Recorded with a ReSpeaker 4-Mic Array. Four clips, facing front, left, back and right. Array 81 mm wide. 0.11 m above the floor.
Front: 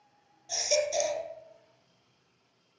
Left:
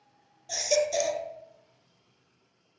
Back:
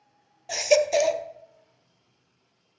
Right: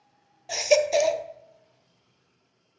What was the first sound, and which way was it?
A baby crying, 140° right.